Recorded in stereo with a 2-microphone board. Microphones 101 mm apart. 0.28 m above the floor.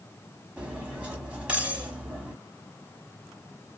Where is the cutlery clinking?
10° right (ahead or behind), 1.0 m.